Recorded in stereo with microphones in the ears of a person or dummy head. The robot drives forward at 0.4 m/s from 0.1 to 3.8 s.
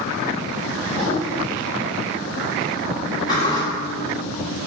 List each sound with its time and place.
0.9 s a whoosh: 35° right (ahead or behind), 2.0 m
3.3 s a sliding door: 20° left (ahead or behind), 1.1 m; by 3.6 s 15° left (ahead or behind), 1.2 m